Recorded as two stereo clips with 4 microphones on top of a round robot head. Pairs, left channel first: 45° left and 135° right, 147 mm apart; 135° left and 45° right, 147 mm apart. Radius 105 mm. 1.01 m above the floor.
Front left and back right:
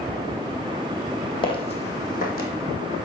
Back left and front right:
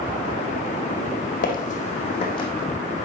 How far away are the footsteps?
About 2.0 m.